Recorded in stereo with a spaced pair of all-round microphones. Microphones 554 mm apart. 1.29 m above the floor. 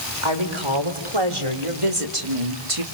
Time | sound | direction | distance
0.2 | a woman speaking | 60° right (ahead or behind) | 4.5 m